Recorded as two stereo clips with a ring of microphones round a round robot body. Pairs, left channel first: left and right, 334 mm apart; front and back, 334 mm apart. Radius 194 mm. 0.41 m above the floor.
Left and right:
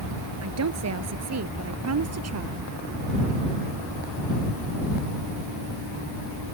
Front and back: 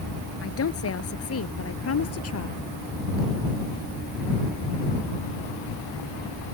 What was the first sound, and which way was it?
A woman speaking, 50° right.